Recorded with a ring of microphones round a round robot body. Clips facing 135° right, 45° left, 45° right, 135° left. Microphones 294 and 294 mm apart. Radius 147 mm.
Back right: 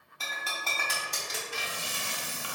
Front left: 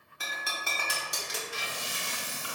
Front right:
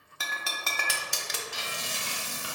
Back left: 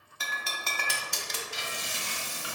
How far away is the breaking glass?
About 0.6 m.